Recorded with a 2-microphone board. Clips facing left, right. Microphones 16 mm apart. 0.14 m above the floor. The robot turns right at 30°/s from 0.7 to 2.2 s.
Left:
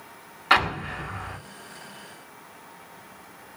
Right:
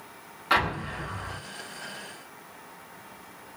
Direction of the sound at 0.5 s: 25° left (ahead or behind).